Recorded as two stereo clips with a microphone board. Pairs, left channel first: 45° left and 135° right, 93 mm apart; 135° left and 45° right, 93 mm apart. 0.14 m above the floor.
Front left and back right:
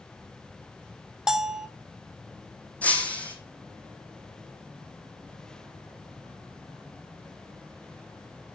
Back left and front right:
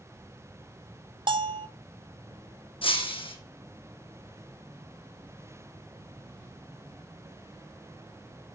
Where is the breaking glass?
120° left, 1.8 m.